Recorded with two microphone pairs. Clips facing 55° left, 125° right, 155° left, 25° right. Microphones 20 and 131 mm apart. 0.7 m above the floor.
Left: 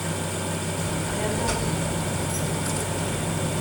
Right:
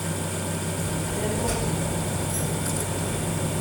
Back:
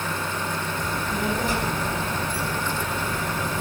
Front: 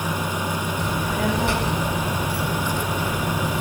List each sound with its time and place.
0.8 s a child speaking: 15° right, 4.5 m